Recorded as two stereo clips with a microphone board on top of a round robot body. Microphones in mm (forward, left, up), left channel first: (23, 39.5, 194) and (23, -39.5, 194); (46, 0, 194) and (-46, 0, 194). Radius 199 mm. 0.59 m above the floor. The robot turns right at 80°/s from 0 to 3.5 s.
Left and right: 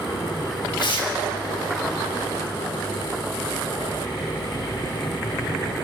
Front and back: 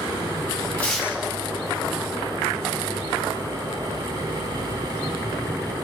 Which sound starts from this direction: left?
Tearing paper, at 0.8 s.